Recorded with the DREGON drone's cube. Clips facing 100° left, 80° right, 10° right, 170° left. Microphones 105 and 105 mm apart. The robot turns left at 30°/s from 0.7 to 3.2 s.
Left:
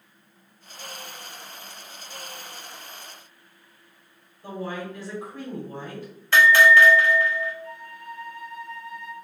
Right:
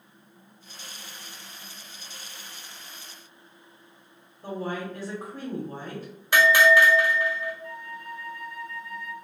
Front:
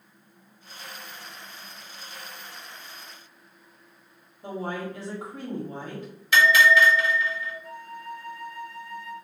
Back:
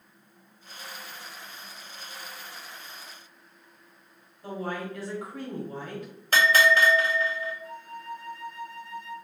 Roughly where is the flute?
Behind.